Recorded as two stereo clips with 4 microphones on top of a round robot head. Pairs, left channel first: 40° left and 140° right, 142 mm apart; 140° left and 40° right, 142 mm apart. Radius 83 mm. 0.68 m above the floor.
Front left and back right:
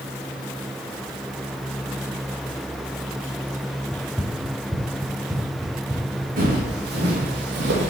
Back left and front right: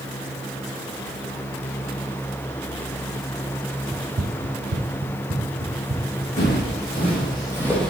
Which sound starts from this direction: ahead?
Running footsteps, at 3.9 s.